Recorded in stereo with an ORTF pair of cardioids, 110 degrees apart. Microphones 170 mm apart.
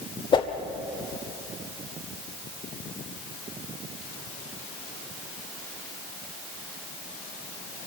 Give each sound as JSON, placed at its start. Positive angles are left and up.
{"t": 0.3, "sound": "a whoosh", "azimuth_deg": 30, "distance_m": 1.9}